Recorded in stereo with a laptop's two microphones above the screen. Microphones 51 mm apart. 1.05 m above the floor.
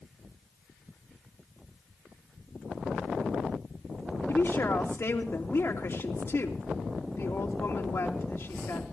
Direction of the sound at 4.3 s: 60° left (ahead or behind).